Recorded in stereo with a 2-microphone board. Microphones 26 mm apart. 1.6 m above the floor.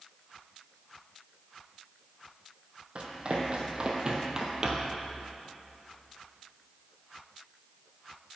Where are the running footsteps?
45° right (ahead or behind), 2.5 m; by 5.0 s 20° right (ahead or behind), 1.7 m.